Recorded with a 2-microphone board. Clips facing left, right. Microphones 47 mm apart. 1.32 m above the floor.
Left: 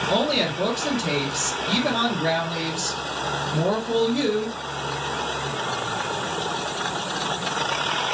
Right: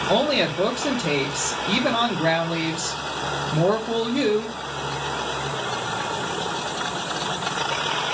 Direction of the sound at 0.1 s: 25° right (ahead or behind).